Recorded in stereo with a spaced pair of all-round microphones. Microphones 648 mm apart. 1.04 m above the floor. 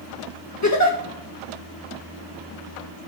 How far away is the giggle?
About 1.5 m.